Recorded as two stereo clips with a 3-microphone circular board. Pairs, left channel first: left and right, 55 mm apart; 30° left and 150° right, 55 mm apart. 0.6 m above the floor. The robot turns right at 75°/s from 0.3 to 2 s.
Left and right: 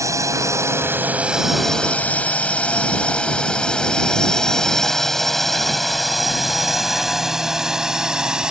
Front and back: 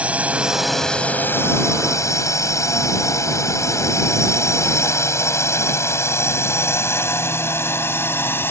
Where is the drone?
85° right; by 8.5 s 15° right.